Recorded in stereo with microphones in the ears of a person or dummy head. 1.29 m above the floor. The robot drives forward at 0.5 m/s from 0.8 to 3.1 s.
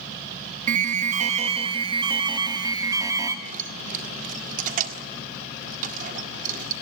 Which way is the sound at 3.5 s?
50° right (ahead or behind).